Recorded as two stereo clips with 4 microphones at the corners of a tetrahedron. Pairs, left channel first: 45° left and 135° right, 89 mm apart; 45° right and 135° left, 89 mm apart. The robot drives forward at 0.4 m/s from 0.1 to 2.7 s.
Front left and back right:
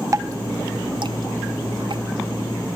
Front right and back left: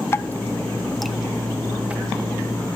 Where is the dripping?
90° right, 0.5 m; by 2.0 s 155° right, 0.9 m.